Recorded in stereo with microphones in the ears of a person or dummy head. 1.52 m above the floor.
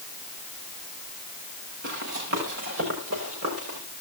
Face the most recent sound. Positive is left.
turn(degrees=-75)  # may be behind; listen again after turning